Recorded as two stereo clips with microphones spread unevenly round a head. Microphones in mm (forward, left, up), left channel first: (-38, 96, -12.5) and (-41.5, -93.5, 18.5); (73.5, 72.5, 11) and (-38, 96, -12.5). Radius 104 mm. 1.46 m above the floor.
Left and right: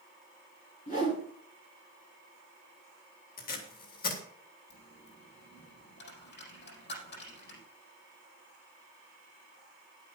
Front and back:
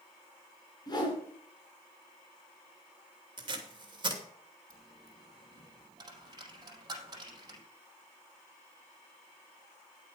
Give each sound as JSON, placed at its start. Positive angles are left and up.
{"t": 0.9, "sound": "a whoosh", "azimuth_deg": 35, "distance_m": 5.0}
{"t": 3.4, "sound": "tape being pulled", "azimuth_deg": 125, "distance_m": 2.5}
{"t": 4.7, "sound": "a dropped coin", "azimuth_deg": 115, "distance_m": 4.5}